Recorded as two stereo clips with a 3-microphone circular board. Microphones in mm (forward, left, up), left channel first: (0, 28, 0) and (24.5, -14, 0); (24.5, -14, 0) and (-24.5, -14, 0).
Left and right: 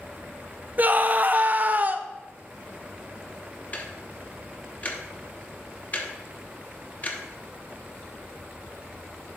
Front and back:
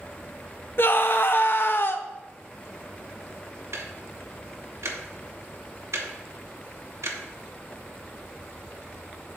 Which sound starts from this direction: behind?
Ticking, at 3.7 s.